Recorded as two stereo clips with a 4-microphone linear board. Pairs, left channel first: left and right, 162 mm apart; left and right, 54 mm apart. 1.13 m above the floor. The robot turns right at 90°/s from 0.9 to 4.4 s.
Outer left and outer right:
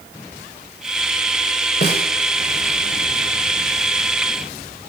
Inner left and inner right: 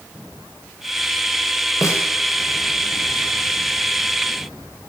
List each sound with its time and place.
1.8 s a snare drum: 75° left (ahead or behind), 2.5 m; by 2.0 s 55° left (ahead or behind), 2.5 m